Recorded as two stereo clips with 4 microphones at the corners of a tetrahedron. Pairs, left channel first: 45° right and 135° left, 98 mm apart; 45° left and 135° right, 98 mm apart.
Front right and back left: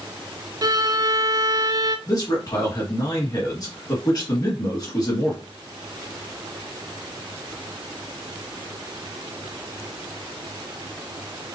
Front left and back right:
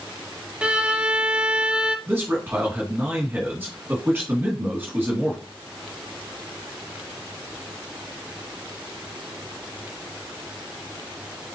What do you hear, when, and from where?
0.6 s a violin: 150° left, 0.5 m
2.1 s a man speaking: 75° right, 2 m